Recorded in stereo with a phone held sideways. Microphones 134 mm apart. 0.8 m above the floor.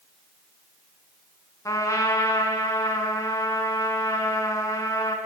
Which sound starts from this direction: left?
A trumpet, at 1.6 s.